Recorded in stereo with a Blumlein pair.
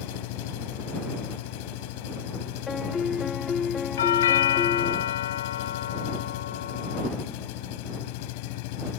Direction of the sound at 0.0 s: 45° left.